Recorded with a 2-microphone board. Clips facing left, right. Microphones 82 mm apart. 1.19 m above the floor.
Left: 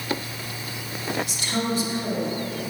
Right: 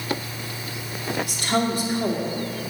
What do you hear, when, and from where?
1.2 s a woman speaking: 55° right (ahead or behind), 2 m